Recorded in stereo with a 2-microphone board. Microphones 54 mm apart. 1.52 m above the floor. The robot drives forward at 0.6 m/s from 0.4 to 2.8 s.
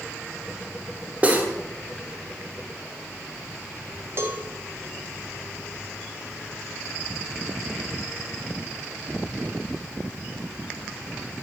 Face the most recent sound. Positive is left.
turn(degrees=-45)  # may be behind; listen again after turning